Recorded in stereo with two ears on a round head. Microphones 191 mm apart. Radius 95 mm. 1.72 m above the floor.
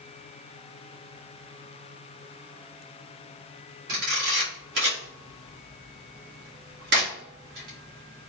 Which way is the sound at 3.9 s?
50° right (ahead or behind).